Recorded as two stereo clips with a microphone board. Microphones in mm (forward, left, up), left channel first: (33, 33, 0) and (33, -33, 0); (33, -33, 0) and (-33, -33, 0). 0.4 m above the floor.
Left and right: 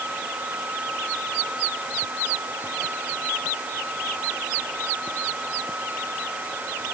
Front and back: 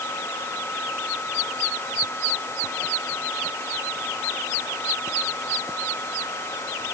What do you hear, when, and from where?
Only background noise.